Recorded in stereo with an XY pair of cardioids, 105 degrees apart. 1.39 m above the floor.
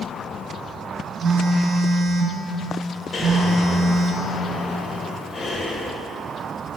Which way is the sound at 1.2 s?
60° right.